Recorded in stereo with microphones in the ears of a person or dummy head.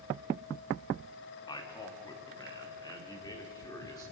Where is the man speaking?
35° left (ahead or behind), 3 m; by 4.0 s 30° left (ahead or behind), 4.5 m.